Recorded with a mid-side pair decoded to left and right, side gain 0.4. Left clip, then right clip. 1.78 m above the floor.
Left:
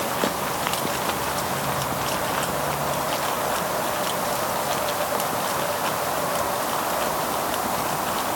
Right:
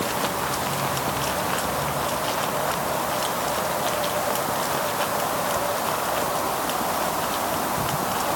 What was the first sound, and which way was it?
Only background noise.